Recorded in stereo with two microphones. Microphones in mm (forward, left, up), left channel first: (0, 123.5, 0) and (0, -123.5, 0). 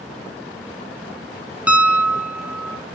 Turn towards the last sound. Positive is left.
turn(degrees=-5)  # may be behind; listen again after turning